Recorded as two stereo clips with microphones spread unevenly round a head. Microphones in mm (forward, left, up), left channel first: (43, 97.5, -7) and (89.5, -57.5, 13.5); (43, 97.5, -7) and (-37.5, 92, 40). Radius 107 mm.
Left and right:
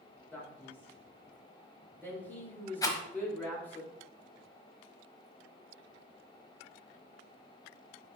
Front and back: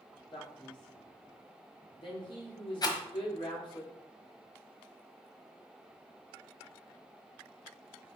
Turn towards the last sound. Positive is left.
turn(degrees=55)